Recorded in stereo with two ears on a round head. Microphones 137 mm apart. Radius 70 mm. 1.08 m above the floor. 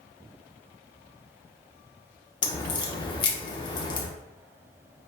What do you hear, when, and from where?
2.4 s a crack: 30° left (ahead or behind), 0.7 m